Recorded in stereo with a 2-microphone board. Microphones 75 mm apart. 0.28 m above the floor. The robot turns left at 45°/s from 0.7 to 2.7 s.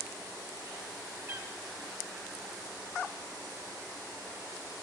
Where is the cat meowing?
30° right (ahead or behind), 1.8 m; by 1.5 s 40° right (ahead or behind), 1.8 m.